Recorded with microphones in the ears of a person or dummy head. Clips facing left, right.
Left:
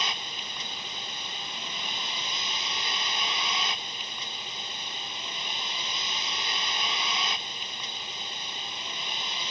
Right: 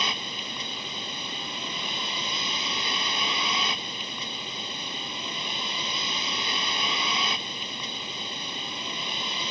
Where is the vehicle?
80° right.